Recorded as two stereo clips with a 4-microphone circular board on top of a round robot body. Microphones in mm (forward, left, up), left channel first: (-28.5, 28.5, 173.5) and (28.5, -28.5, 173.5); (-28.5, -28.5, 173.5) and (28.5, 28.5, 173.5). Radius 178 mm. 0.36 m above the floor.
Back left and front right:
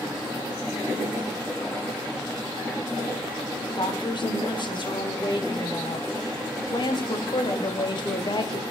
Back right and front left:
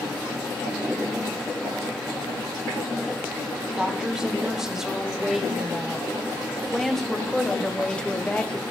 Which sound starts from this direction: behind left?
A woman speaking, at 3.8 s.